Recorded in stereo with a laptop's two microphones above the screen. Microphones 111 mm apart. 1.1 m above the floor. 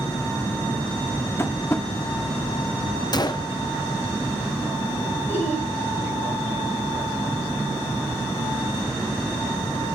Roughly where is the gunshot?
Left.